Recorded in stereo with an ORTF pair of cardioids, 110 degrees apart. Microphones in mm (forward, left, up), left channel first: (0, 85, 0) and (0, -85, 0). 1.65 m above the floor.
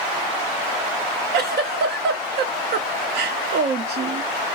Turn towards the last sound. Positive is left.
turn(degrees=-65)